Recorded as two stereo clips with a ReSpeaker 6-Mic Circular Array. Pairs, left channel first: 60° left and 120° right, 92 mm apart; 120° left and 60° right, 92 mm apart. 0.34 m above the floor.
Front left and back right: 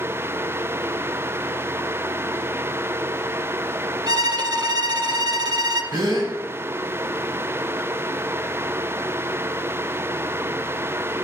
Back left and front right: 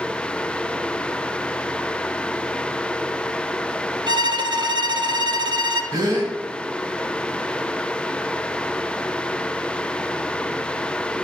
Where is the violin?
85° right, 0.5 m.